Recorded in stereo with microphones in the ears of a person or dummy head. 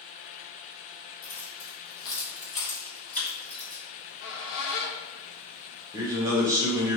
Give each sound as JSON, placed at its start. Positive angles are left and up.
{"t": 1.2, "sound": "keys jangling", "side_deg": 40, "distance_m": 1.7}
{"t": 3.9, "sound": "a squeak", "side_deg": 70, "distance_m": 0.9}
{"t": 5.9, "sound": "a man speaking", "side_deg": -15, "distance_m": 1.5}